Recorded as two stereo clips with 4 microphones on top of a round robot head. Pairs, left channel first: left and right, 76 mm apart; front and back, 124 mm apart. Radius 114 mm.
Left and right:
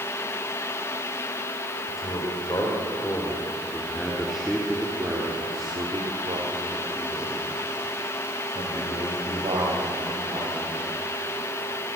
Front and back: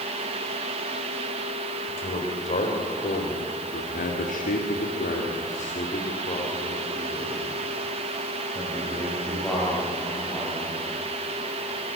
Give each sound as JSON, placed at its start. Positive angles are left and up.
{"t": 1.9, "sound": "a man speaking", "azimuth_deg": 35, "distance_m": 5.0}